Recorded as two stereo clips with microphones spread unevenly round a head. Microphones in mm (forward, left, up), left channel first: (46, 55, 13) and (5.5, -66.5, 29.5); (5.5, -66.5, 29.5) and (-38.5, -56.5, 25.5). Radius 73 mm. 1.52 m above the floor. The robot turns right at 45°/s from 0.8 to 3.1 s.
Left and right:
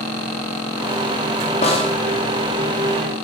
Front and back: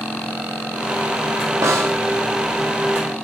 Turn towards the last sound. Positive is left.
turn(degrees=-170)